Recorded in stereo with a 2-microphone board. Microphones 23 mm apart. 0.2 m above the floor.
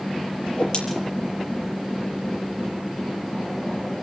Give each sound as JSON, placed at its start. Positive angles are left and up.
{"t": 0.5, "sound": "a whoosh", "side_deg": 50, "distance_m": 6.0}